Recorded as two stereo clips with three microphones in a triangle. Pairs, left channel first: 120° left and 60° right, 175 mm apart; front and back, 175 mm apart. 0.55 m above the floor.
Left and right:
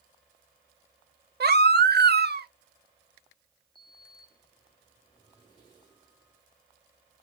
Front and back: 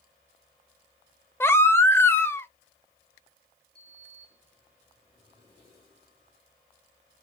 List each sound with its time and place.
1.4 s a baby crying: 80° right, 0.6 m
3.8 s a sliding door: 55° left, 4.5 m